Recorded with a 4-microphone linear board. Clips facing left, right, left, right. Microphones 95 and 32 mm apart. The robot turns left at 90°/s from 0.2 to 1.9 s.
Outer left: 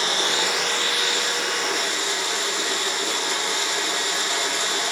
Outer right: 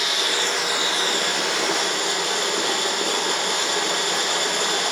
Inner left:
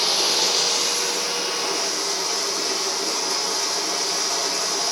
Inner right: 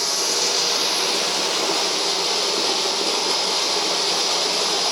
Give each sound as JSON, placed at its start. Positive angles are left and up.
{"t": 0.0, "sound": "running water", "azimuth_deg": 35, "distance_m": 4.0}